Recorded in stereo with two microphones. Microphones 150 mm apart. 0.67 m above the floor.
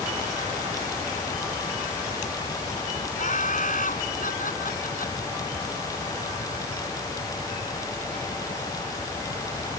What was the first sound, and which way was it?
Laughter, 60° left (ahead or behind).